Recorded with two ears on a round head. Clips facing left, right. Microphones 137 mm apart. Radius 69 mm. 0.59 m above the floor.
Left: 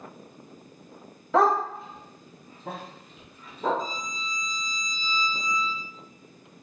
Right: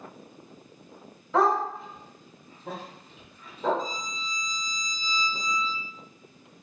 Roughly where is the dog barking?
Left.